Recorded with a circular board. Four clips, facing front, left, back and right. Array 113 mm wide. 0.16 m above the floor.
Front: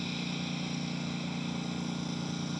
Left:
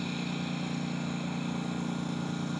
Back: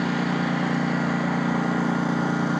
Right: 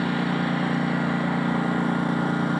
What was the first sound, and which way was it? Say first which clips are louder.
A lawn mower: right 11 dB, back 13 dB; 140° right.